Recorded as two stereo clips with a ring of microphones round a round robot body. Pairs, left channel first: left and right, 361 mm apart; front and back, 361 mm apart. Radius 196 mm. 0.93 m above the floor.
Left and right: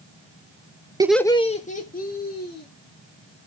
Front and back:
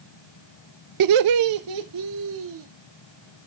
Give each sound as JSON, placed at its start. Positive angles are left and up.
{"t": 1.0, "sound": "laughter", "azimuth_deg": -165, "distance_m": 0.5}